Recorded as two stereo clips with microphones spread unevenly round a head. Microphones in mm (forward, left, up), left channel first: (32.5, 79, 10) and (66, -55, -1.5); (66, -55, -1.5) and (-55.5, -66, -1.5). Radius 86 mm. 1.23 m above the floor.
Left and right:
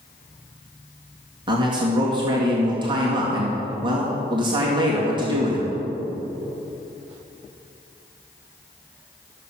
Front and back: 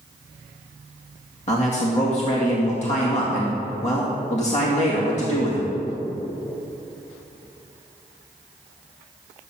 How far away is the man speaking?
About 2 m.